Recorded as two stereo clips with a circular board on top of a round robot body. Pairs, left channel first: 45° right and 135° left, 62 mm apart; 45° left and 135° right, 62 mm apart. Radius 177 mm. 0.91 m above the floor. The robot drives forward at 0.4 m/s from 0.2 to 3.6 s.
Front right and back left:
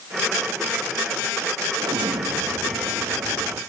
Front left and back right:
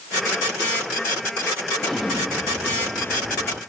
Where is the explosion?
130° left, 0.5 m; by 3.6 s 160° left, 1.1 m.